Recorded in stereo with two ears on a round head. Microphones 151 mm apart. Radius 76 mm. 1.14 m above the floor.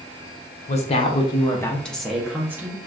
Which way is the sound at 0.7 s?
40° left (ahead or behind).